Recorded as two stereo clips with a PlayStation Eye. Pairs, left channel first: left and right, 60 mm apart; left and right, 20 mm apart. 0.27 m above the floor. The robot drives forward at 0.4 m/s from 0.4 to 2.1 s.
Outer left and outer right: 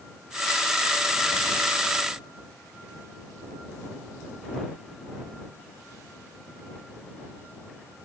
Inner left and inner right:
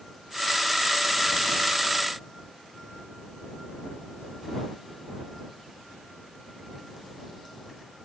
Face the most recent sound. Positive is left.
No sound to turn to.